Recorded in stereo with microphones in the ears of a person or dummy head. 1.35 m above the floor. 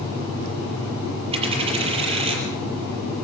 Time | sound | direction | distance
1.3 | a dropped coin | 35° right (ahead or behind) | 6 m